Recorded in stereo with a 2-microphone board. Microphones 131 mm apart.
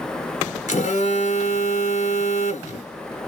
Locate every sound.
0.7 s a phone buzzing: 65° left (ahead or behind), 0.9 m